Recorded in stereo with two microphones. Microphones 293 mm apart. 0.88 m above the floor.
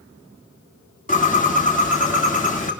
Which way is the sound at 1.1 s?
25° left (ahead or behind).